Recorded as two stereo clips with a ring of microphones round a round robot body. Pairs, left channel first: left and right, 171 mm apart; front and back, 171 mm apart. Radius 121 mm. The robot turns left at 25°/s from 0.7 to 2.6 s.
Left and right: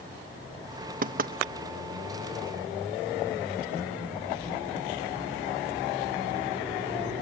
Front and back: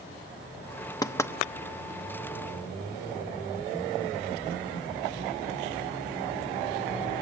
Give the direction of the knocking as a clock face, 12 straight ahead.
2 o'clock.